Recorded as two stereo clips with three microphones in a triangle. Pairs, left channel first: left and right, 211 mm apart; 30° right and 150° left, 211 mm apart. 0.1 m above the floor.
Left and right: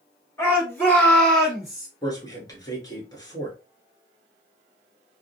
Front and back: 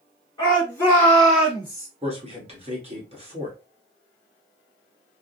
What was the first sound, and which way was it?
A shout, 25° left.